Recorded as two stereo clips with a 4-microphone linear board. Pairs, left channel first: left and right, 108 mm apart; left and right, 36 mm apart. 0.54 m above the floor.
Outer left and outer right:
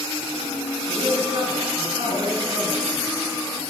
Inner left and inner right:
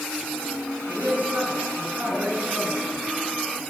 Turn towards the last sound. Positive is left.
turn(degrees=-60)  # may be behind; listen again after turning